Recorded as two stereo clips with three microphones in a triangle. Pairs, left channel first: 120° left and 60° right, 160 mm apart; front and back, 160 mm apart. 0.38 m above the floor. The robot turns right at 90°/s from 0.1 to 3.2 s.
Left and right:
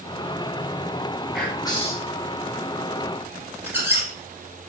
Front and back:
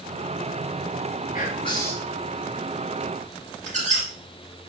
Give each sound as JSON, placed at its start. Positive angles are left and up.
{"t": 1.3, "sound": "whispering", "azimuth_deg": 25, "distance_m": 3.5}
{"t": 3.7, "sound": "a squeak", "azimuth_deg": -140, "distance_m": 3.0}